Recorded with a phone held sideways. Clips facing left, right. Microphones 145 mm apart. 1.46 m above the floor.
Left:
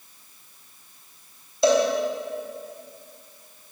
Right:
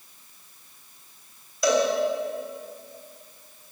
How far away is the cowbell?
About 3.5 m.